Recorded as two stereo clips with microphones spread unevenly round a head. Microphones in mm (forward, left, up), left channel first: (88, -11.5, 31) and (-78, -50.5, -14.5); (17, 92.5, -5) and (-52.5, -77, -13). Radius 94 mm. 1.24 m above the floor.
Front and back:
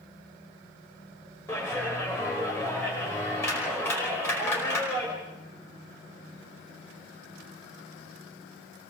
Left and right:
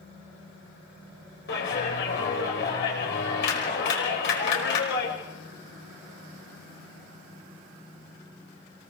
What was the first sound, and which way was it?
A clap, 90° left.